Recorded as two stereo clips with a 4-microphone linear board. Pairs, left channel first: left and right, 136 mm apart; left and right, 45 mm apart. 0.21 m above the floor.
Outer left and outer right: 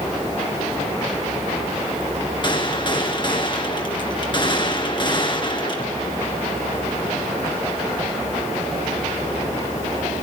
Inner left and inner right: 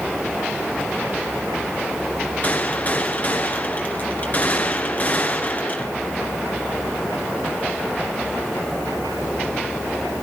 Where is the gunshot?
35° left (ahead or behind), 2.5 m.